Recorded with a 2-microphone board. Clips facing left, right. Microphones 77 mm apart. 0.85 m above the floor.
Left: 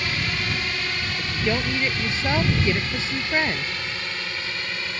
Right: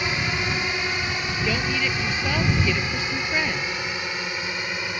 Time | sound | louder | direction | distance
0.0 | a drone | right 2 dB | 20° right (ahead or behind) | ?
1.2 | a woman speaking | left 5 dB | 20° left (ahead or behind) | ?